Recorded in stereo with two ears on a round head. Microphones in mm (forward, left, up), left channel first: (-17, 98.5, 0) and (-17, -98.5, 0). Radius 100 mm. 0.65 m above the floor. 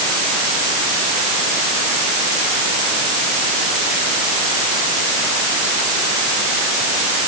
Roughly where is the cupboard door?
No cupboard door in this recording.